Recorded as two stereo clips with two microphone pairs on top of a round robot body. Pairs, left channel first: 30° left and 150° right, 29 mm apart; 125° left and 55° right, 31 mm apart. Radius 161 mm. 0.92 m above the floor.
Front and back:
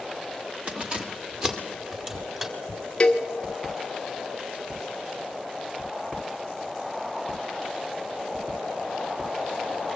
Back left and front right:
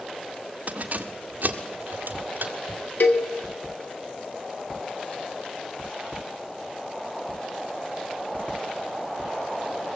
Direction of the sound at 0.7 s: 100° right.